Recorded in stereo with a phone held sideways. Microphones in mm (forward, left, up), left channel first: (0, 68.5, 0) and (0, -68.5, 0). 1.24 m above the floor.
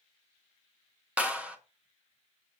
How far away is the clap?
About 1.1 m.